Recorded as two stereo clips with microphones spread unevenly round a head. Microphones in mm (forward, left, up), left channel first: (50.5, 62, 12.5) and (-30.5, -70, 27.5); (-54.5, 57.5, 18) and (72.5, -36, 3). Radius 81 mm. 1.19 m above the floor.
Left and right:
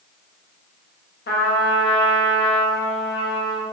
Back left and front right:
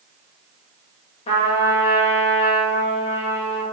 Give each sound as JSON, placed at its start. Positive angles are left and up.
{"t": 1.3, "sound": "a trumpet", "azimuth_deg": 90, "distance_m": 1.0}